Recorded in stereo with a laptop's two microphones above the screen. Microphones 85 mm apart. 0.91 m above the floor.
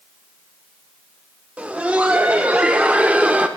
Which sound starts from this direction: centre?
Laughter, at 1.6 s.